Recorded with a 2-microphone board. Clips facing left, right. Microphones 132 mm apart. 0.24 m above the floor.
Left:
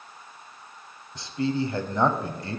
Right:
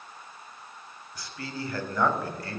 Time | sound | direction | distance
1.1 | a man speaking | 25° left (ahead or behind) | 1.1 m